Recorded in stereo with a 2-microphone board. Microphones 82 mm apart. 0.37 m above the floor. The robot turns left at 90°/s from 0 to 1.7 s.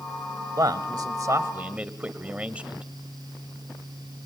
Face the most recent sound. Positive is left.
turn(degrees=-160)